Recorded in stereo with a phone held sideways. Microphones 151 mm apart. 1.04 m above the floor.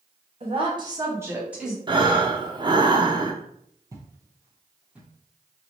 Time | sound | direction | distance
0.4 | a woman speaking | 45° right (ahead or behind) | 1.5 m
1.9 | breathing | 35° right (ahead or behind) | 0.7 m
3.9 | footsteps | 25° right (ahead or behind) | 1.1 m